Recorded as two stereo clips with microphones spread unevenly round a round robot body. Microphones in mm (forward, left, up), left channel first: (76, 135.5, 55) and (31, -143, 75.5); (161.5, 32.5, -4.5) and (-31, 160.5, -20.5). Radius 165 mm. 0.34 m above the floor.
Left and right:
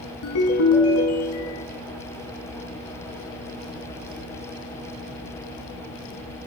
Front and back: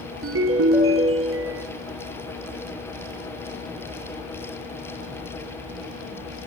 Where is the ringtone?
120° left, 4.5 m.